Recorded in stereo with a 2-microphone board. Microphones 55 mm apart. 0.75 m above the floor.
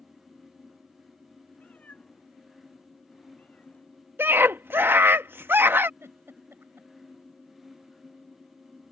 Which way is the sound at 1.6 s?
30° left (ahead or behind).